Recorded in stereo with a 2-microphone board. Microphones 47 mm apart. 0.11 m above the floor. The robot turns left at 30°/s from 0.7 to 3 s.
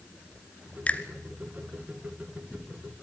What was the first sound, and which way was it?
A finger snap, 30° left (ahead or behind).